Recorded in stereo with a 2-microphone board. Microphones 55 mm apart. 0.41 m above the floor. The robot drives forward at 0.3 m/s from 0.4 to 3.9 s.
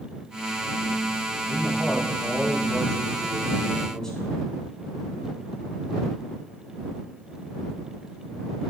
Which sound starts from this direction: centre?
A man speaking, at 1.5 s.